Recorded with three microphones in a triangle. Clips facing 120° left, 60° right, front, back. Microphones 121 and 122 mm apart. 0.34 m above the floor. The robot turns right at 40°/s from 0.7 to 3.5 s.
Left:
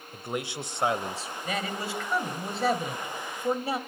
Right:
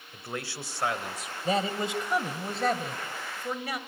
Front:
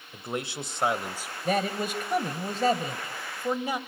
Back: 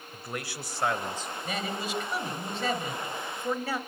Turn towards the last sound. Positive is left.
turn(degrees=70)